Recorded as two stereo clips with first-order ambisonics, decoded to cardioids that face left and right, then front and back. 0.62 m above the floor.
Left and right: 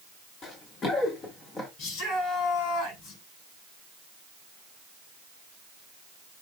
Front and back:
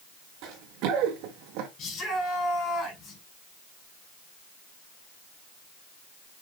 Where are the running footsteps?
150° left, 3 m; by 1.7 s 160° left, 1.9 m.